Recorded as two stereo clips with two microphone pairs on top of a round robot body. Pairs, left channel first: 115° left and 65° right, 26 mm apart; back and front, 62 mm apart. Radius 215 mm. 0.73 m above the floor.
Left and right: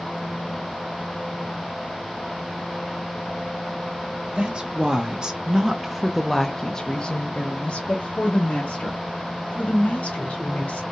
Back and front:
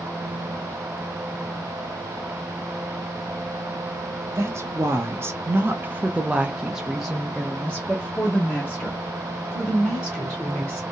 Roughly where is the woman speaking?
Ahead right.